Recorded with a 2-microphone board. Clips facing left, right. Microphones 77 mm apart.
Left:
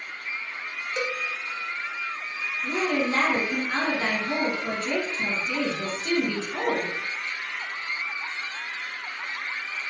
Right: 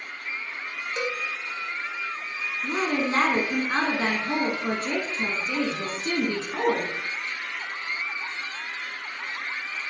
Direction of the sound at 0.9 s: 10° right (ahead or behind).